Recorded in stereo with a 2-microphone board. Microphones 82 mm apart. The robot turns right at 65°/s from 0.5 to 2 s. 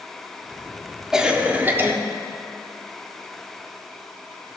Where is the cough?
165° right, 1.0 m; by 1.9 s 110° right, 1.0 m.